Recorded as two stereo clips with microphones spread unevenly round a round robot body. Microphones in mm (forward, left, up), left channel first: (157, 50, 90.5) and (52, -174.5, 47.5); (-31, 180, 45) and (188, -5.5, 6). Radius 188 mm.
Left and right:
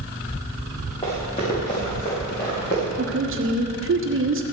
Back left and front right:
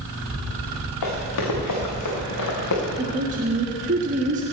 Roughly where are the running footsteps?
Behind left.